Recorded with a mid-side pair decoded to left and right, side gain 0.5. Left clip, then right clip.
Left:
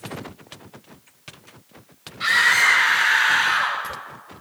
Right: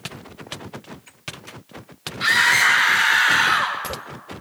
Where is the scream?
5° right, 5 m; by 3.8 s 15° right, 3.5 m.